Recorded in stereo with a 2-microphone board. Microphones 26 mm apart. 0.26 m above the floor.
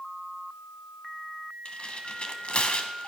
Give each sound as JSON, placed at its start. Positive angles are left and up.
{"t": 1.6, "sound": "tearing paper", "side_deg": 45, "distance_m": 1.1}